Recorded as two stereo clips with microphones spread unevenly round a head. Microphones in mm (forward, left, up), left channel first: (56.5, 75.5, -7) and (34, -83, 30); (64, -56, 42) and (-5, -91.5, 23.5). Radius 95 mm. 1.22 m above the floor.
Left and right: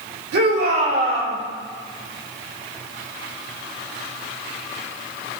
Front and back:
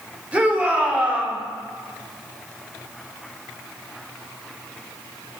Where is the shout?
80° right, 5 m.